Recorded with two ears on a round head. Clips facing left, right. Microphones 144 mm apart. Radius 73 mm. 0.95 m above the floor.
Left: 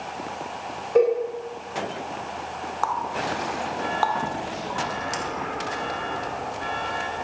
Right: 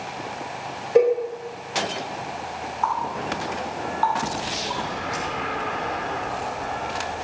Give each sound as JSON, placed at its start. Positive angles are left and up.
{"t": 0.9, "sound": "a cowbell", "side_deg": -5, "distance_m": 7.5}
{"t": 2.8, "sound": "a running tap", "side_deg": 55, "distance_m": 1.6}